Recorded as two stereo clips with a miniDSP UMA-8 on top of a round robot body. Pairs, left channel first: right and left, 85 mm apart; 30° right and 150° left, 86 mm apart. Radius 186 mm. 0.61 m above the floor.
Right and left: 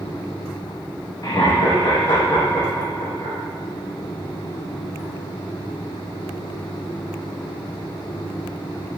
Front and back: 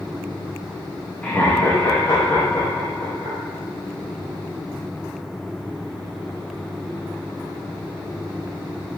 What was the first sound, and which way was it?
Laughter, 100° right.